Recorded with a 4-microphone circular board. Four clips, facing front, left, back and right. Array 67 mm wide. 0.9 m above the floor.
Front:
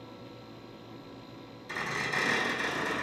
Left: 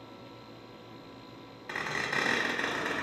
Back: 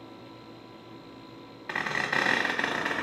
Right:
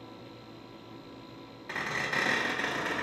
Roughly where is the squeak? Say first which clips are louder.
Even, back 4 dB; behind.